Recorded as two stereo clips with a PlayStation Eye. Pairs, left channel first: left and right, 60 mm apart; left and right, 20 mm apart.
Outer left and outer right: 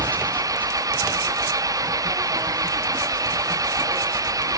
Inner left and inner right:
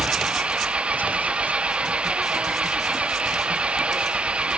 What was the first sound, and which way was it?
An engine running, 75° right (ahead or behind).